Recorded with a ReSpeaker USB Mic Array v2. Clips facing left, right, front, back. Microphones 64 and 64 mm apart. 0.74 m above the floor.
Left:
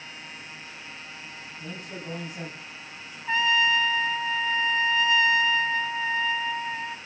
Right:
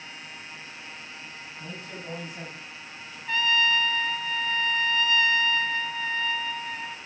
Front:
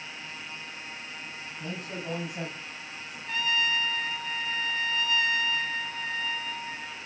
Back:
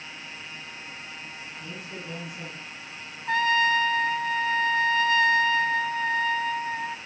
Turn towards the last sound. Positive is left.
turn(degrees=155)